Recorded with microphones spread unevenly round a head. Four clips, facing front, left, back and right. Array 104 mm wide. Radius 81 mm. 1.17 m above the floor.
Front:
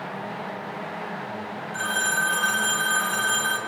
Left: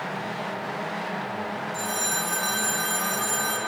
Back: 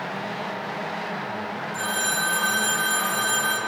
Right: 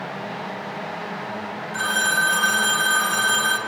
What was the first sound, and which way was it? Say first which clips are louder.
A phone ringing: right 7 dB, front 3 dB; 100° right.